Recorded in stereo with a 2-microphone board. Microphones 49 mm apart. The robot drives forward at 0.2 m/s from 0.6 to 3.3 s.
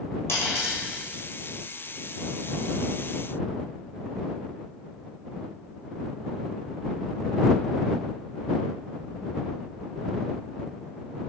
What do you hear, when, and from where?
0.3 s a dropped coin: 60° left (ahead or behind), 1.3 m